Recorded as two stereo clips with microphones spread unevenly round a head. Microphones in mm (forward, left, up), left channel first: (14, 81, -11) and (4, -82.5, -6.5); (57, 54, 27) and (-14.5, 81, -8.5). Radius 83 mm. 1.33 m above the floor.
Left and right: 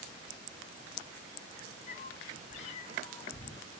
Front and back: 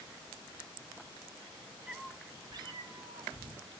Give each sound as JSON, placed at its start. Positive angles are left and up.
{"t": 1.9, "sound": "a cat meowing", "azimuth_deg": 55, "distance_m": 0.9}